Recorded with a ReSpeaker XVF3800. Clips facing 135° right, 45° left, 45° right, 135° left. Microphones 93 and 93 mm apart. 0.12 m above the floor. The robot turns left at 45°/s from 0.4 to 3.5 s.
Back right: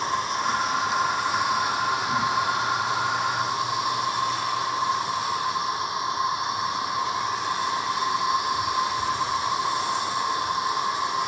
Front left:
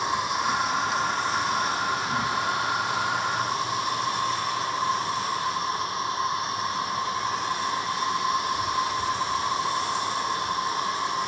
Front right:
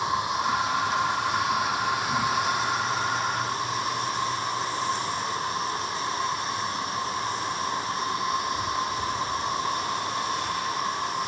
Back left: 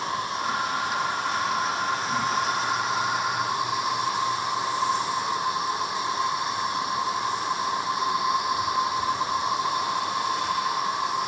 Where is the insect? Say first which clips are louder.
Even, front right 2 dB; 30° right, 1.4 m; by 11.3 s 170° right, 1.4 m.